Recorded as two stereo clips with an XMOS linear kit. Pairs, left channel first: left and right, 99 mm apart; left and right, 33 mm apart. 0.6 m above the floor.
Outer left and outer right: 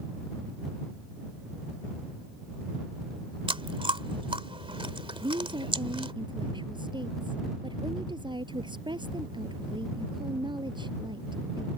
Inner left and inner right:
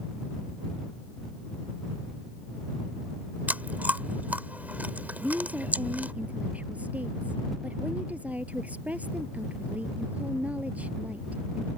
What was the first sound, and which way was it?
Chewing, 65° right (ahead or behind).